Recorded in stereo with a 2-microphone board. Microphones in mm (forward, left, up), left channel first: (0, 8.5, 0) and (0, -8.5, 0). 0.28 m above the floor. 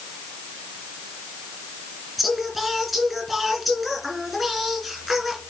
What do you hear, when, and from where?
2.2 s singing: centre (ahead or behind), 2.5 m